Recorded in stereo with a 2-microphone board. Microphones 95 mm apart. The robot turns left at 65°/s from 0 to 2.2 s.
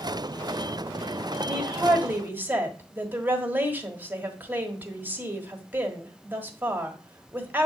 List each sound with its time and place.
1.4 s a woman speaking: 5° right (ahead or behind), 1.4 m; by 7.7 s 20° right (ahead or behind), 1.4 m